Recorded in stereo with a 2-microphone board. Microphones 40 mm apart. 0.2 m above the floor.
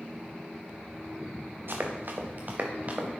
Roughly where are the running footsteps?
Right.